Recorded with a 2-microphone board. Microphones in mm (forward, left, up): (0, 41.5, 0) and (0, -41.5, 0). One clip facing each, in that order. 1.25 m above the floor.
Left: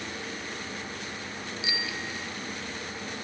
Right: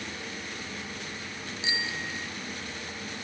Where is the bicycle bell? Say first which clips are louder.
Right 2 dB; 30° right (ahead or behind).